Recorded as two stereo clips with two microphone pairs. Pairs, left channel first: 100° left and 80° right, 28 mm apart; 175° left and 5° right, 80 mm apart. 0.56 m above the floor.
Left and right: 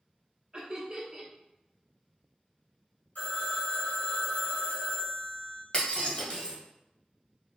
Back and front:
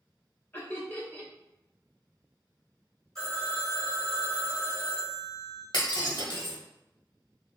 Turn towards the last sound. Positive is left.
turn(degrees=155)